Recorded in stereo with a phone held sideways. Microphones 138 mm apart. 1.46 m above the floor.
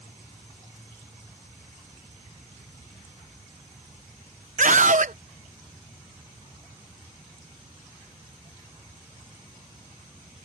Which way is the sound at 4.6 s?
65° right (ahead or behind).